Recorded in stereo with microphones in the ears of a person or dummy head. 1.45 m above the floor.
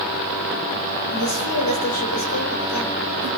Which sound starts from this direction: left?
A woman speaking, at 1.1 s.